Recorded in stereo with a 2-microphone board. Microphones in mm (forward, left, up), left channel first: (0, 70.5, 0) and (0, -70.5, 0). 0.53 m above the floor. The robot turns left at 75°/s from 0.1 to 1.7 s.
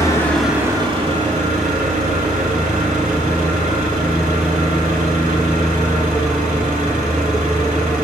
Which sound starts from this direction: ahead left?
An engine running, at 0.0 s.